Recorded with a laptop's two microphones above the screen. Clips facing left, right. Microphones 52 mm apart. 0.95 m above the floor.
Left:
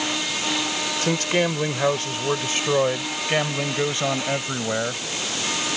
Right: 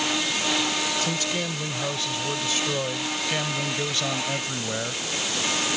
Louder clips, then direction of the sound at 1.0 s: Left 6 dB; 50° left (ahead or behind).